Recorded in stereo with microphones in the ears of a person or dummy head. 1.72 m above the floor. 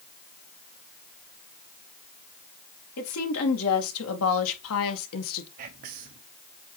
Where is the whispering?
45° right (ahead or behind), 0.7 m.